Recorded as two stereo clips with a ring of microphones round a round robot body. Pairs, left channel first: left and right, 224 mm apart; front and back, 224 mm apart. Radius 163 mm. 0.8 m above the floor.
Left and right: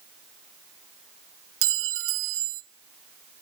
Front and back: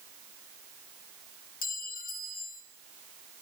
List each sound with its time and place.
1.6 s a clink: 60° right, 0.7 m